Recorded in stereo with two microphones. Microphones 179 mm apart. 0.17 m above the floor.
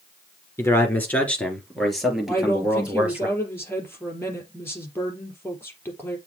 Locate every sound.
0.6 s a man speaking: 15° left (ahead or behind), 3 m; by 3.3 s 10° right (ahead or behind), 4 m
2.3 s a woman speaking: 15° left (ahead or behind), 3.5 m